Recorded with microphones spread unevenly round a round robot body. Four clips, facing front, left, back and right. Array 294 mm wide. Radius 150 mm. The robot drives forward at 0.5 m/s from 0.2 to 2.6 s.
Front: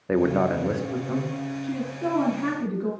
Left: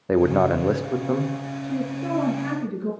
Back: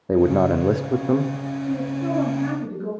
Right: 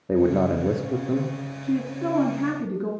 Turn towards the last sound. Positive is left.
turn(degrees=-90)